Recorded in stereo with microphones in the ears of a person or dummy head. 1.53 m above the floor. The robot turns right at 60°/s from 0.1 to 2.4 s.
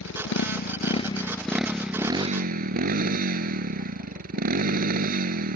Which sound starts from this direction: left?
A motorcycle, at 0.0 s.